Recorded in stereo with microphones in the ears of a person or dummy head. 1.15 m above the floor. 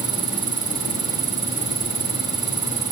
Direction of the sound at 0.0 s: 20° right (ahead or behind).